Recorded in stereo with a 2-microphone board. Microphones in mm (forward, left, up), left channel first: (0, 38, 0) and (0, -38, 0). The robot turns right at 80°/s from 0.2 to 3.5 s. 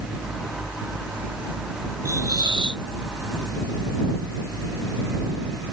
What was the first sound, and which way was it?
A hiss, 140° right.